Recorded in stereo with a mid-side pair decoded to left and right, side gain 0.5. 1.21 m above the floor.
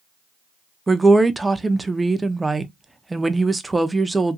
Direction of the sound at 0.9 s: 15° right.